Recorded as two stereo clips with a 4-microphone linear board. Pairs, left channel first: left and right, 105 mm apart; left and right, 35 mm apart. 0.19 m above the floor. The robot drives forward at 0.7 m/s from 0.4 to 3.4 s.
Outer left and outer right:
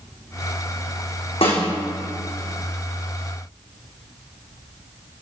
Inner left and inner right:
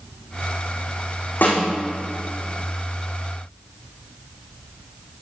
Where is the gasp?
I don't hear a gasp.